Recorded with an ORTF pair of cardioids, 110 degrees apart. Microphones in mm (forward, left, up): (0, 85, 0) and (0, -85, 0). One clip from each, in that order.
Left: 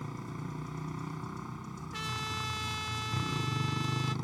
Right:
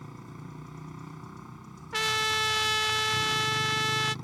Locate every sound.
0.0 s a motorcycle: 20° left
1.9 s a trumpet: 55° right